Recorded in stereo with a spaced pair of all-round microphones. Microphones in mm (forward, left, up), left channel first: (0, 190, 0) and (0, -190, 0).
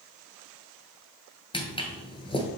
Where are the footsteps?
15° left (ahead or behind), 1.2 m.